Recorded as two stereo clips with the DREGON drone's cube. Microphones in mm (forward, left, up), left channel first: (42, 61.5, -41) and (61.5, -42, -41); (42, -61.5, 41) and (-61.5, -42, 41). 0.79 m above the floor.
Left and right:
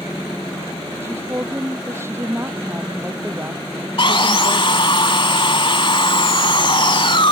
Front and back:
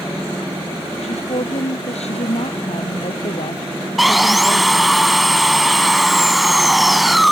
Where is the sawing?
80° left.